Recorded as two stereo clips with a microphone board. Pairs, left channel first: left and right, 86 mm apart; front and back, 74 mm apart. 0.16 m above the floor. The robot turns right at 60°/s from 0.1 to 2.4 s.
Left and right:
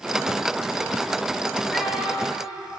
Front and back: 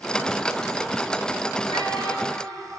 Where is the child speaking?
175° left, 2.0 m; by 2.6 s 140° right, 2.0 m.